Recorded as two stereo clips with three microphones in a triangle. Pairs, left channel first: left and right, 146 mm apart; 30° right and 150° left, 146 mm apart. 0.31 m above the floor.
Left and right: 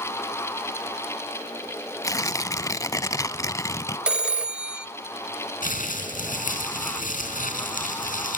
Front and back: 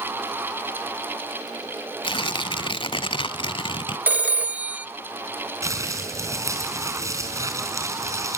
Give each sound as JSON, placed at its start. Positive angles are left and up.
{"t": 2.0, "sound": "tearing paper", "azimuth_deg": 20, "distance_m": 0.7}
{"t": 4.1, "sound": "a phone ringing", "azimuth_deg": -160, "distance_m": 0.6}
{"t": 5.6, "sound": "crumpling", "azimuth_deg": 80, "distance_m": 4.0}